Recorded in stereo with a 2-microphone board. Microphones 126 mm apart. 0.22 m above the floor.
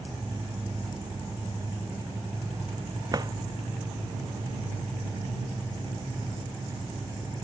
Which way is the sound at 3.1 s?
35° right (ahead or behind).